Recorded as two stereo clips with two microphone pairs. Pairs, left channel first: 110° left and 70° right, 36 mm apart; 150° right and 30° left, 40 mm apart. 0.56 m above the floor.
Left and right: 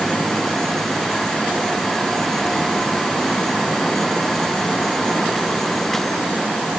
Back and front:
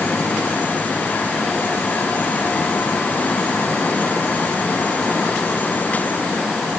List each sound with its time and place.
Only background noise.